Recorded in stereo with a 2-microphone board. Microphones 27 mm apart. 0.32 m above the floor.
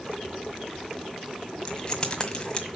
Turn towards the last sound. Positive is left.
turn(degrees=25)  # may be behind; listen again after turning